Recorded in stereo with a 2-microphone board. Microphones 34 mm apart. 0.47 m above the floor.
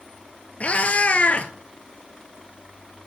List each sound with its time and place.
0.6 s a cat meowing: 45° left (ahead or behind), 0.6 m